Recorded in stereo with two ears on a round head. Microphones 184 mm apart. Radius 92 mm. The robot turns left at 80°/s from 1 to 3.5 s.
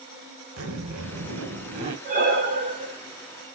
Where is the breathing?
60° right, 1.6 m; by 3.0 s 130° right, 1.6 m.